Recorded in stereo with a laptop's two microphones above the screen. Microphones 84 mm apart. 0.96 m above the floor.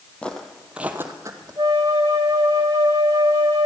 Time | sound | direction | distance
0.2 | footsteps | 15° left (ahead or behind) | 1.6 m
1.6 | a flute | 50° right (ahead or behind) | 1.2 m